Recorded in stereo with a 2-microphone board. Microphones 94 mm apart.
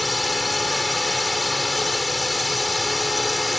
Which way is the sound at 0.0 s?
Centre (ahead or behind).